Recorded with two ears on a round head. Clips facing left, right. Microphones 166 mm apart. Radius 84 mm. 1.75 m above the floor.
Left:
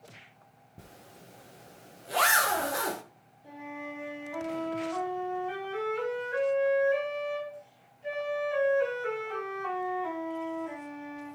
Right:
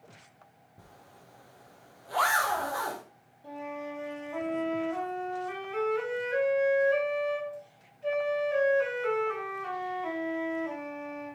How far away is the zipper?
About 0.6 m.